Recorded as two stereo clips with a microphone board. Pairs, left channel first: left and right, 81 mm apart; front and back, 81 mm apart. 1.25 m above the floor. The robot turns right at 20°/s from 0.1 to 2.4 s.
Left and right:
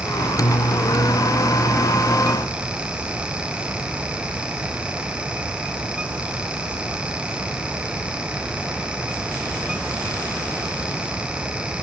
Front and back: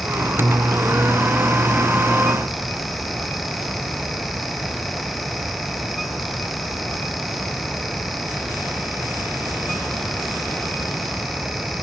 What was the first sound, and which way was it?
Only background noise.